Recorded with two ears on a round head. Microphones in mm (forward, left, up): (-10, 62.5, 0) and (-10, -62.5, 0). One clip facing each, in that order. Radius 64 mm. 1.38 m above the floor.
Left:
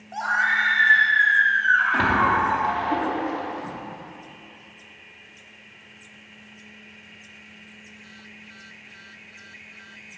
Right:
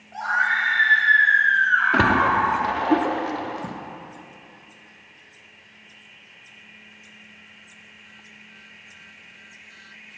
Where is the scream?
50° left (ahead or behind), 1.3 m; by 2.8 s 55° left (ahead or behind), 4 m.